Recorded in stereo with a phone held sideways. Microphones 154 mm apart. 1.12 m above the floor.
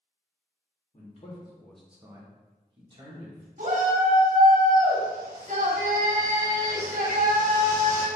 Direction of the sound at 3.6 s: 55° right (ahead or behind).